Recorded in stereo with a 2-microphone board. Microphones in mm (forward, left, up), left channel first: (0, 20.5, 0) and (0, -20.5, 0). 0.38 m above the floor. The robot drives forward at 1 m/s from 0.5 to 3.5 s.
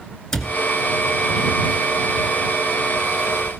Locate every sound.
0.3 s a cupboard door: 15° left (ahead or behind), 1.8 m